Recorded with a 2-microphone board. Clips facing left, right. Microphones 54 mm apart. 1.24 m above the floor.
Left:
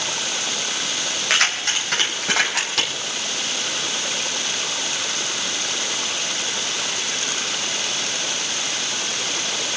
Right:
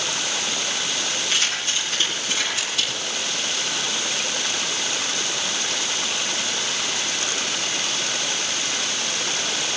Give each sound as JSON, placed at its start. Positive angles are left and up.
{"t": 1.3, "sound": "keys jangling", "side_deg": 75, "distance_m": 4.5}